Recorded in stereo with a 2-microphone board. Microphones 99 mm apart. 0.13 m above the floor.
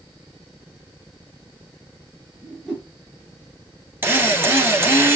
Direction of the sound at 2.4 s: 5° right (ahead or behind).